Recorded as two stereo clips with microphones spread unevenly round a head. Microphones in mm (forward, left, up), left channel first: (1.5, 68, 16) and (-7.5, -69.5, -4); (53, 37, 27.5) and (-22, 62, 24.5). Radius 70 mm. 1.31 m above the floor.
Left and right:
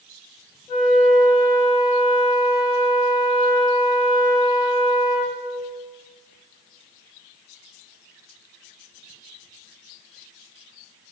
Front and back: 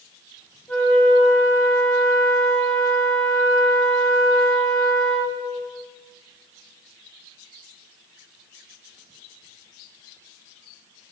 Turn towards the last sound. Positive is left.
turn(degrees=40)